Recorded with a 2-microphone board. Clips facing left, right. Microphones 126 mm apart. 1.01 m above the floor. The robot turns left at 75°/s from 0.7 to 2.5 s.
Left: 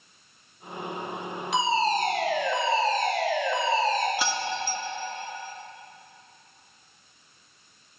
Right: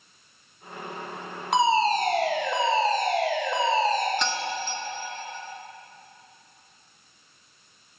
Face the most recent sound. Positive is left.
turn(degrees=5)  # may be behind; listen again after turning